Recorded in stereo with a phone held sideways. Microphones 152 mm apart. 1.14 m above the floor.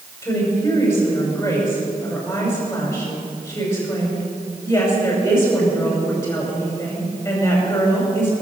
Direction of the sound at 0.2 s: 15° left (ahead or behind).